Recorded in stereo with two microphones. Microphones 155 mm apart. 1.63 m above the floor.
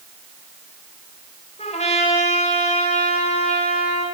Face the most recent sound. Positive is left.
turn(degrees=45)  # may be behind; listen again after turning